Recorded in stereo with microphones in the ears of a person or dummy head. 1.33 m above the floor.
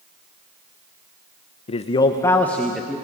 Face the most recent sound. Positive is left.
turn(degrees=-5)  # may be behind; listen again after turning